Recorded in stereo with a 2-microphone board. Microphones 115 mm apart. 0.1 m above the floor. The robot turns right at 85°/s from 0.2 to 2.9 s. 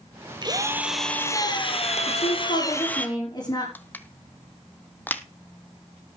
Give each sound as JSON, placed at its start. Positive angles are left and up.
{"t": 0.4, "sound": "a drill", "azimuth_deg": -45, "distance_m": 1.7}
{"t": 2.1, "sound": "a woman speaking", "azimuth_deg": 70, "distance_m": 7.5}
{"t": 3.8, "sound": "crushing", "side_deg": 15, "distance_m": 0.8}